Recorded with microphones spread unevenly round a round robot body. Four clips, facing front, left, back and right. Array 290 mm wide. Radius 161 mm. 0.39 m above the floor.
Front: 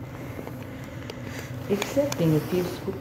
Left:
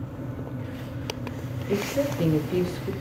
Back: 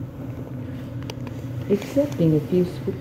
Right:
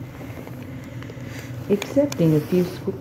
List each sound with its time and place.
1.7 s a woman speaking: 145° right, 1.1 m